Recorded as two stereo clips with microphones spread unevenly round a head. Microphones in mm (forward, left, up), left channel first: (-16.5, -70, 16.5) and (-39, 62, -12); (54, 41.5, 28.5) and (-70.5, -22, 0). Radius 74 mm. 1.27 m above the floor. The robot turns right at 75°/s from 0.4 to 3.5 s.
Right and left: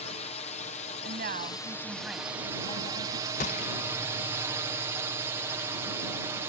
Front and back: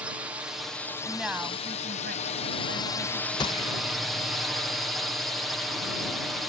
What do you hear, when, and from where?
0.0 s a drone: 100° right; by 6.5 s 135° left
1.0 s a woman speaking: 105° left; by 3.3 s 85° right
3.4 s a gunshot: 35° right; by 3.8 s 30° right